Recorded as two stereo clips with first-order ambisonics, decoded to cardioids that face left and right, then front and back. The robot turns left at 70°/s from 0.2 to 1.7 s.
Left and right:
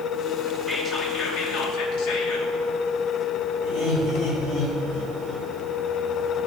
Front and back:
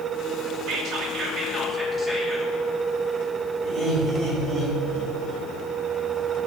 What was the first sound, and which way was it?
Whispering, 175° left.